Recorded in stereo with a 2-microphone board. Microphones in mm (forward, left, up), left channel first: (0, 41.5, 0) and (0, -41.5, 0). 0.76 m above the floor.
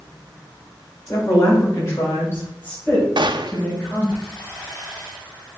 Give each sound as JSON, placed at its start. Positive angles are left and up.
{"t": 1.1, "sound": "a woman speaking", "side_deg": 45, "distance_m": 3.5}
{"t": 3.2, "sound": "a gunshot", "side_deg": -65, "distance_m": 0.6}